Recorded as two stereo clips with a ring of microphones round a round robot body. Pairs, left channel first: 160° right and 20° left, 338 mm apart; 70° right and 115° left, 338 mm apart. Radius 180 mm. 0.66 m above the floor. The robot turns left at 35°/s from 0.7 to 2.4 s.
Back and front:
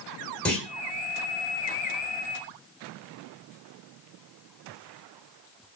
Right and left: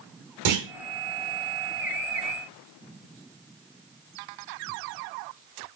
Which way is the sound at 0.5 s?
115° left.